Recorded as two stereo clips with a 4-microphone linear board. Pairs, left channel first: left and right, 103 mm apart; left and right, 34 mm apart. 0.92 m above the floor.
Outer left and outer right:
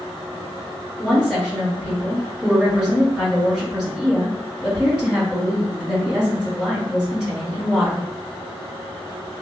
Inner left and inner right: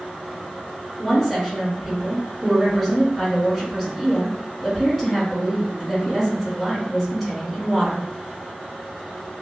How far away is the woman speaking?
About 1.6 m.